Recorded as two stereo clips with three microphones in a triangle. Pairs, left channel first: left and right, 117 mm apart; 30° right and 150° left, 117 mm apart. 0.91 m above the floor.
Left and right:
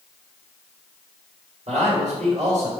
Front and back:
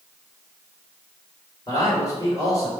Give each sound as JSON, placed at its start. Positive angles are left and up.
{"t": 1.7, "sound": "a man speaking", "azimuth_deg": -90, "distance_m": 3.0}